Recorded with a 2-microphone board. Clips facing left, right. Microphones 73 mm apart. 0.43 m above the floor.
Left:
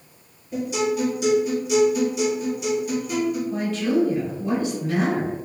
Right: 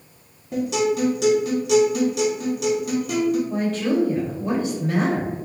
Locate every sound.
0.5 s a guitar: 75° right (ahead or behind), 2.0 m
3.5 s a woman speaking: 40° right (ahead or behind), 1.9 m